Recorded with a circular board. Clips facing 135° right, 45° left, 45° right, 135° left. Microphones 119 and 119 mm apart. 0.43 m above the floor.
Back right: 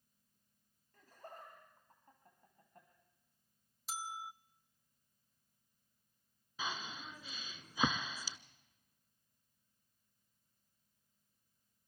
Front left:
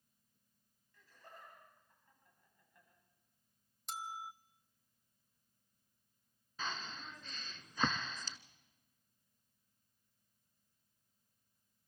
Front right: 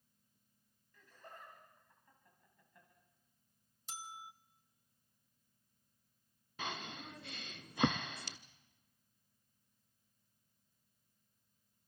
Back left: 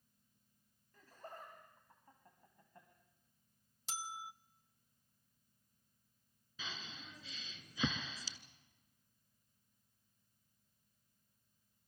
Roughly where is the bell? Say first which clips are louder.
Even, back left 3 dB; behind left.